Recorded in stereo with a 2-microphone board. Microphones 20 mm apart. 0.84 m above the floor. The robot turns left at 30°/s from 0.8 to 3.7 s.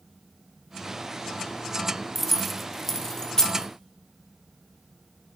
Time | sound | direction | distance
2.1 | keys jangling | 5° right (ahead or behind) | 0.6 m